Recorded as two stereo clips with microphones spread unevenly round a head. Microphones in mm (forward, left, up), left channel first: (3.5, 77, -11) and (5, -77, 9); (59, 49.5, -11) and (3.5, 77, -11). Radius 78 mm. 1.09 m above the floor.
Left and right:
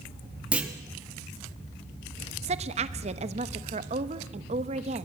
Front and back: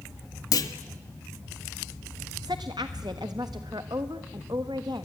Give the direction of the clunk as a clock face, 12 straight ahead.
12 o'clock.